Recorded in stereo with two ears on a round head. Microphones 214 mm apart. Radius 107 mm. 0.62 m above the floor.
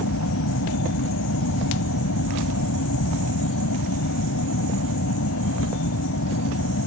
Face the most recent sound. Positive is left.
turn(degrees=60)  # may be behind; listen again after turning